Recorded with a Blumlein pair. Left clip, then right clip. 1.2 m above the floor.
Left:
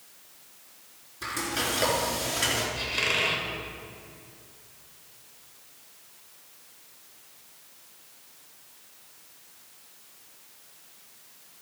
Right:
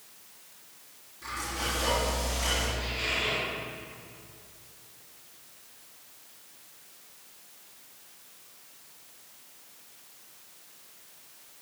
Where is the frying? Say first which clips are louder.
Left 4 dB; 35° left, 4.5 m.